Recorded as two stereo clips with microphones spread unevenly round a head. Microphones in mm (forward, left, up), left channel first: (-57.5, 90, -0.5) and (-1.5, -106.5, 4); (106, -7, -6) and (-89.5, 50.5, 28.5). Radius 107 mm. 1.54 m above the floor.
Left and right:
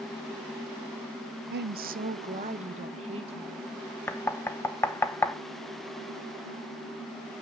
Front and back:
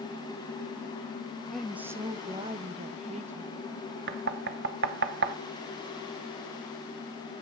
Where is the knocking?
175° right, 0.8 m.